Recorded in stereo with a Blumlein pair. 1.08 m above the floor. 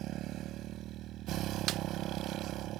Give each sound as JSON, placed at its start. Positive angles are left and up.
{"t": 0.0, "sound": "a motorcycle", "azimuth_deg": -35}
{"t": 1.7, "sound": "a snare drum", "azimuth_deg": -35}